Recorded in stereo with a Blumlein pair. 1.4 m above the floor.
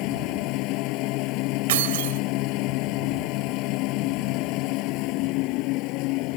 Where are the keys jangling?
55° right.